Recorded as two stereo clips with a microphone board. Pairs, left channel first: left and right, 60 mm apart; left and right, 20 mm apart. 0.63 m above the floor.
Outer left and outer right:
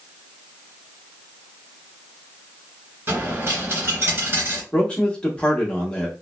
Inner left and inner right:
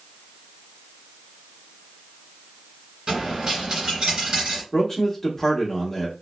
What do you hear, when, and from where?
3.1 s a dropped coin: 40° right (ahead or behind), 1.9 m
4.7 s a man speaking: 15° left (ahead or behind), 1.0 m